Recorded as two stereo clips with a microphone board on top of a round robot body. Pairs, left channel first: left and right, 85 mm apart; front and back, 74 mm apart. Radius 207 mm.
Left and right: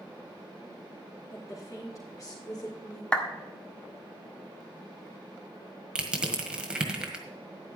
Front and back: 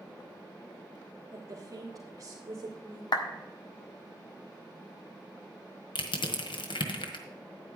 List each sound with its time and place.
1.3 s a woman speaking: 140° left, 2 m; by 3.0 s 135° left, 3 m
3.1 s a clap: 10° left, 1.7 m
6.0 s crushing: 10° right, 1.6 m